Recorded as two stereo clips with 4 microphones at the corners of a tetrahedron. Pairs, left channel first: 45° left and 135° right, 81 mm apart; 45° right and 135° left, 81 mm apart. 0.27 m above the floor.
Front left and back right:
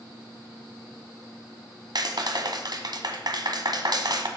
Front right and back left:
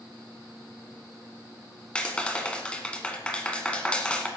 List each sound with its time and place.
1.9 s a clap: 120° right, 1.5 m